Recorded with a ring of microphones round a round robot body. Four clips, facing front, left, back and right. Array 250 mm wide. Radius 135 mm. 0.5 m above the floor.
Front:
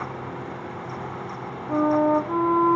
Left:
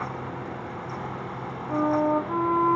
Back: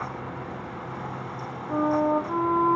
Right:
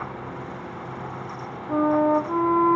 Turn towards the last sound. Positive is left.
turn(degrees=-50)